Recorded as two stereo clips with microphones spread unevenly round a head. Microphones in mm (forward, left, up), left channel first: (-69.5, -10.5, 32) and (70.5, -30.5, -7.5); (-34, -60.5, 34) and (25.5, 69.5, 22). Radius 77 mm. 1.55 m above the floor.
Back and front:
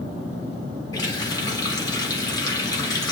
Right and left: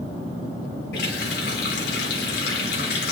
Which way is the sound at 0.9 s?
125° right.